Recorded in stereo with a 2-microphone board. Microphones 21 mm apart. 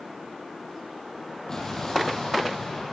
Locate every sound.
1.5 s an explosion: 20° left (ahead or behind), 6 m